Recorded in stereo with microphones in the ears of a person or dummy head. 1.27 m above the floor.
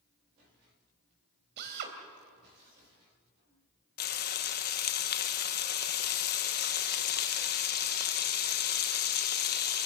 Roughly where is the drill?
Right.